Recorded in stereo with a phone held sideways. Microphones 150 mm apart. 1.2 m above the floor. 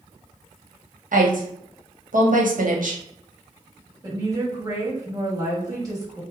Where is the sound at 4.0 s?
25° right (ahead or behind), 1.6 m.